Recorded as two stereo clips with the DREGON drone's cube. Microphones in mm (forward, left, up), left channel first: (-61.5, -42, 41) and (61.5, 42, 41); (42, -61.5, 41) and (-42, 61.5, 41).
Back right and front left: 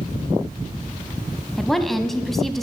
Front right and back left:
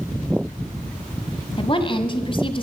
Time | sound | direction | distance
1.6 | a woman speaking | 60° right | 1.2 m